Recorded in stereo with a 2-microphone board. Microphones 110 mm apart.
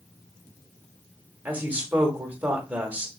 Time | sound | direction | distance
1.4 | a woman speaking | 15° right (ahead or behind) | 0.9 m